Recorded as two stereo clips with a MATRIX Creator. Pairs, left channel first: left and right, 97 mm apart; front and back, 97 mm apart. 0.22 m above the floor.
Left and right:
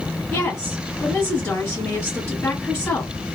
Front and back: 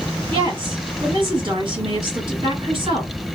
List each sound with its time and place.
0.3 s a woman speaking: 165° left, 3 m